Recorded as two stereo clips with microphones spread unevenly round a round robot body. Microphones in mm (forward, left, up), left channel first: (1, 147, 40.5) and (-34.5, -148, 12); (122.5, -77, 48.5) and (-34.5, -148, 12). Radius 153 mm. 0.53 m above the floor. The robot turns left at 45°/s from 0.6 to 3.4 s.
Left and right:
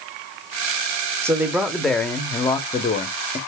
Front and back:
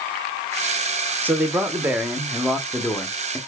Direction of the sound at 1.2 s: 150° right.